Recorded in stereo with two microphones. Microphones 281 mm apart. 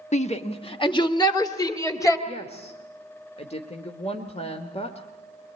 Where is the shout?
25° left (ahead or behind), 1.1 m; by 2.2 s 10° left (ahead or behind), 3 m.